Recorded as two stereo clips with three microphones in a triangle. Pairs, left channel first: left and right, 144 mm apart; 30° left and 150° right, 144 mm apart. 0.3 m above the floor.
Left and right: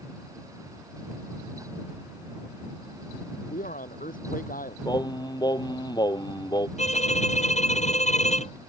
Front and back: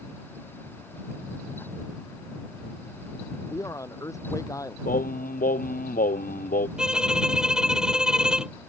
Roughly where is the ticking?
No ticking in this recording.